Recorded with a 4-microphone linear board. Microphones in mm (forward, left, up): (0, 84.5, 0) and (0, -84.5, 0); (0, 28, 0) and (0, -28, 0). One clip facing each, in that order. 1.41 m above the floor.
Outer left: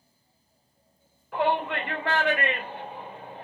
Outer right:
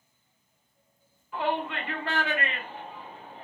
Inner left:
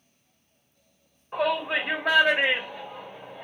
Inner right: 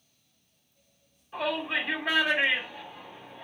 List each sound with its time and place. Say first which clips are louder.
1.3 s a shout: outer left 4 dB, inner left 4 dB; 75° left (ahead or behind), 1.8 m